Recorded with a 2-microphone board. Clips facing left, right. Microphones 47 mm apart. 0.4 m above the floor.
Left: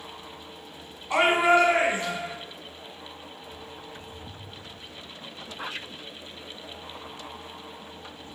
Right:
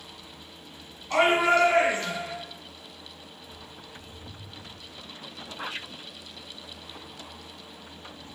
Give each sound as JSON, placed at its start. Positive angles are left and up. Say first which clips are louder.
{"t": 1.1, "sound": "a shout", "louder": "left 1 dB", "side_deg": 20, "distance_m": 3.0}
{"t": 3.4, "sound": "a bird", "louder": "left 4 dB", "side_deg": 70, "distance_m": 2.5}